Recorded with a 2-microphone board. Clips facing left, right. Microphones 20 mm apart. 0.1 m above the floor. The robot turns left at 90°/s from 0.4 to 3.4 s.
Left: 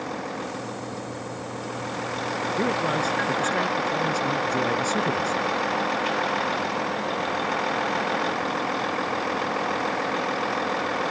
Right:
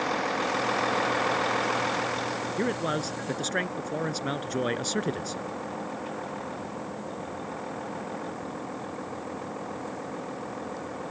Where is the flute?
I don't hear a flute.